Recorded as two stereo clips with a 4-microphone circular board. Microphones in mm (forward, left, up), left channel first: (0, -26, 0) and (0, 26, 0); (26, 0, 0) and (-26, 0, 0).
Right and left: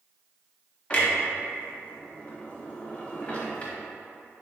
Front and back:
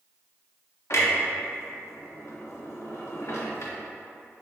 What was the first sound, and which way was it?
A clunk, 20° right.